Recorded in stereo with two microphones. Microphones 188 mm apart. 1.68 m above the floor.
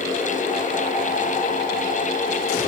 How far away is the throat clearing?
I don't hear throat clearing.